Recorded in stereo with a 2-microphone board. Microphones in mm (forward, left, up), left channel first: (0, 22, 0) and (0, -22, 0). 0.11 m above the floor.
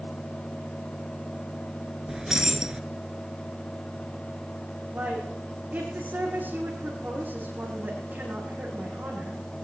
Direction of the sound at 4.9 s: 50° right (ahead or behind).